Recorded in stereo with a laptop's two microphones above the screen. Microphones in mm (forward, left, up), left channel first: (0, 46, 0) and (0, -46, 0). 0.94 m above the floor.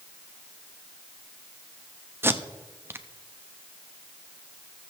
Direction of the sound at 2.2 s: 25° right (ahead or behind).